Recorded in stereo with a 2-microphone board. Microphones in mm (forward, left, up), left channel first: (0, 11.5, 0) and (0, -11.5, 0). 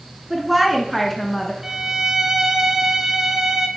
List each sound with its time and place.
0.3 s a woman speaking: 15° right (ahead or behind), 1.2 m; by 1.5 s 15° left (ahead or behind), 1.3 m
1.6 s a violin: 20° right (ahead or behind), 0.7 m